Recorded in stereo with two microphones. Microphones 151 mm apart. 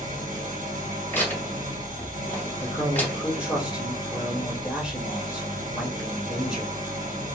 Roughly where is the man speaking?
Centre.